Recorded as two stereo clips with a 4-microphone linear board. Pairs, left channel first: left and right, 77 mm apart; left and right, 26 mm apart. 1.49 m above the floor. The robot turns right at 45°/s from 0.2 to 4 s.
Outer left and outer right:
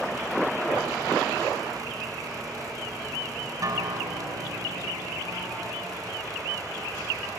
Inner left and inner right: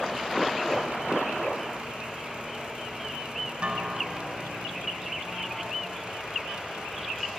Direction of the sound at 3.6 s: 50° right (ahead or behind).